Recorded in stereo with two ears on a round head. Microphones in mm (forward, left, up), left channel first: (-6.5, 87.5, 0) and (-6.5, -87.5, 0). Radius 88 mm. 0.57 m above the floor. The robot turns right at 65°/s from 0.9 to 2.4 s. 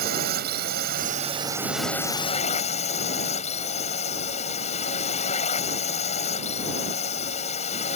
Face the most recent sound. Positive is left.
turn(degrees=40)